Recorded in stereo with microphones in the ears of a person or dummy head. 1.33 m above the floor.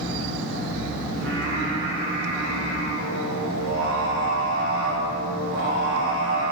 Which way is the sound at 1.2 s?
65° right (ahead or behind).